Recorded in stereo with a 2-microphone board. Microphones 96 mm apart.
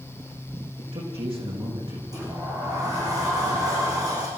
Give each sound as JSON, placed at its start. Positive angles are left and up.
{"t": 0.8, "sound": "a man speaking", "side_deg": -70, "distance_m": 7.0}
{"t": 2.1, "sound": "a sliding door", "side_deg": -40, "distance_m": 6.5}